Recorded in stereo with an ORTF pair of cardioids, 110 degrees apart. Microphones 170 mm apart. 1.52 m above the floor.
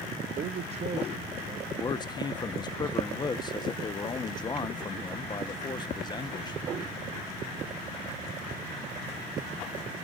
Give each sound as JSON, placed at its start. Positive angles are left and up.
{"t": 0.4, "sound": "a man speaking", "azimuth_deg": -45, "distance_m": 0.7}
{"t": 1.8, "sound": "a man speaking", "azimuth_deg": 25, "distance_m": 1.2}